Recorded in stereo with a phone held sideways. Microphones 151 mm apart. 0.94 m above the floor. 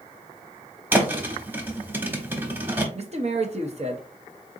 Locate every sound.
0.9 s a thud: 15° right (ahead or behind), 0.8 m
3.0 s a man speaking: 50° right (ahead or behind), 0.7 m